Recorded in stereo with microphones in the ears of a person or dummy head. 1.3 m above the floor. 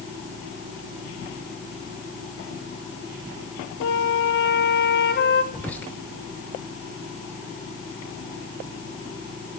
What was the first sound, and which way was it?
A flute, 65° left (ahead or behind).